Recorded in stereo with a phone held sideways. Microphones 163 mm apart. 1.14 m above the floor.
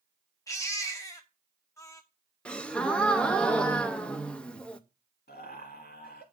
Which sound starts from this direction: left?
Laughter, at 5.3 s.